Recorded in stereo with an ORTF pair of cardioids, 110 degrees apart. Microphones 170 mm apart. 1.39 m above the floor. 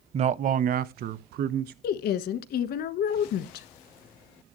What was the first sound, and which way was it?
A man speaking, 35° right.